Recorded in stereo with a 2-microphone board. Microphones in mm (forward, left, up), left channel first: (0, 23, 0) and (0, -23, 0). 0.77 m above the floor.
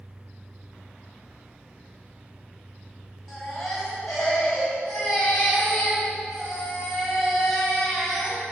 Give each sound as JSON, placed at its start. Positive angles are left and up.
{"t": 3.3, "sound": "a baby crying", "side_deg": 0, "distance_m": 3.5}